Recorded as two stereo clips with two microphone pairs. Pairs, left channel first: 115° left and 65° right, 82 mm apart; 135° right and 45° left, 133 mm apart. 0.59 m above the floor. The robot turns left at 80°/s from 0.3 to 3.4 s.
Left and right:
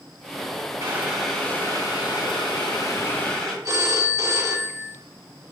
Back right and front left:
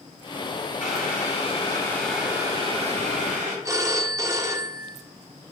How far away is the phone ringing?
About 0.6 m.